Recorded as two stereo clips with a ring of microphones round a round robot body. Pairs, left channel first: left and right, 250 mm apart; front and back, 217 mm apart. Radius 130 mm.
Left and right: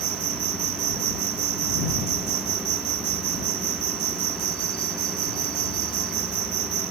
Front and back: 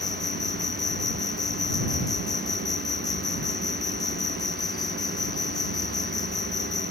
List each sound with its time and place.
0.0 s an insect: 75° right